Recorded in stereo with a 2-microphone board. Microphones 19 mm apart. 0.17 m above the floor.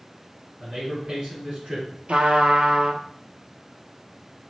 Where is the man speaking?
40° right (ahead or behind), 2.0 m.